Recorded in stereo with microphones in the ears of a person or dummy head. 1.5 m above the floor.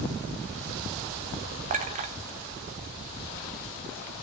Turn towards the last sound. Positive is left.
turn(degrees=-40)  # may be behind; listen again after turning